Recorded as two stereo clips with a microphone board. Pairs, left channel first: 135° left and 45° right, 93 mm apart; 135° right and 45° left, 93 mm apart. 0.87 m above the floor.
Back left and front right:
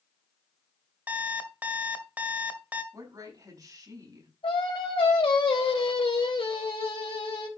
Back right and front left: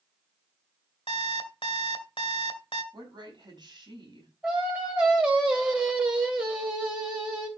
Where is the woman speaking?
5° left, 5 m.